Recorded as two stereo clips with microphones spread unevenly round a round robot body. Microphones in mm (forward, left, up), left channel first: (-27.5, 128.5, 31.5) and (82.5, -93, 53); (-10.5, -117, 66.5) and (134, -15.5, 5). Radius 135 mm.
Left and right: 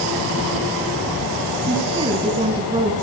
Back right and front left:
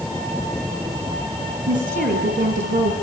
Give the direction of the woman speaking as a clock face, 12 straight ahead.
12 o'clock.